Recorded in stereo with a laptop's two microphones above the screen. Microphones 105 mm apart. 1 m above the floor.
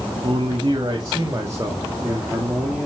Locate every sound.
0.2 s a man speaking: 50° right (ahead or behind), 2 m; by 2.9 s 10° right (ahead or behind), 2.5 m